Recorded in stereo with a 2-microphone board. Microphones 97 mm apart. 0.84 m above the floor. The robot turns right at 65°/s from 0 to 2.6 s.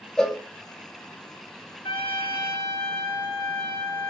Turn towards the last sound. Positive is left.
turn(degrees=130)